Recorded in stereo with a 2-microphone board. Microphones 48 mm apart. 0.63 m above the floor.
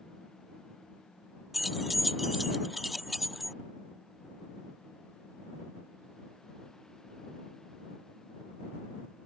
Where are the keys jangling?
Centre (ahead or behind).